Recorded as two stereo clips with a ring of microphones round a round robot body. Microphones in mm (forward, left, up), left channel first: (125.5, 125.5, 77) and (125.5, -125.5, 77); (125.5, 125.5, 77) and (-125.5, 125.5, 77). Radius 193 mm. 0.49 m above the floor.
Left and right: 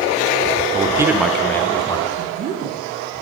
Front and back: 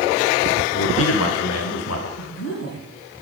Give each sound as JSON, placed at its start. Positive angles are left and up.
{"t": 0.7, "sound": "a man speaking", "azimuth_deg": -25, "distance_m": 1.4}
{"t": 2.2, "sound": "a woman speaking", "azimuth_deg": -45, "distance_m": 5.5}